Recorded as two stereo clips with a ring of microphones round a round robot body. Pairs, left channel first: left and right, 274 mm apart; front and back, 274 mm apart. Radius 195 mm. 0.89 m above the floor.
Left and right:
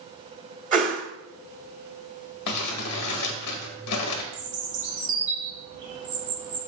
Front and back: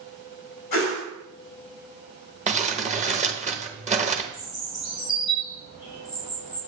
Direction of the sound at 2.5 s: 115° left.